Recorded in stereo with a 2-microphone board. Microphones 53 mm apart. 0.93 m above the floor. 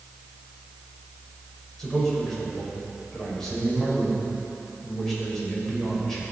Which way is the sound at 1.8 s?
10° left (ahead or behind).